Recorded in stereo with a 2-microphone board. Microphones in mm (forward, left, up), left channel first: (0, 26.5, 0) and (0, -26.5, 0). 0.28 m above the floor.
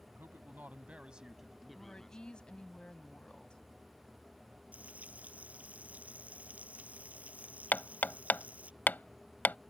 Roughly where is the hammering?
Left.